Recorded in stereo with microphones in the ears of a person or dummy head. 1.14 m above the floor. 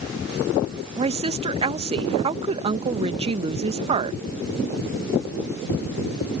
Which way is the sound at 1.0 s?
30° right (ahead or behind).